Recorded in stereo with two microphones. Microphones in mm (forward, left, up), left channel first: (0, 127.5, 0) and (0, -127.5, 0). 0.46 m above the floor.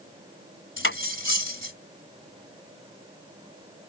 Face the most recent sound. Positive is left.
turn(degrees=50)  # may be behind; listen again after turning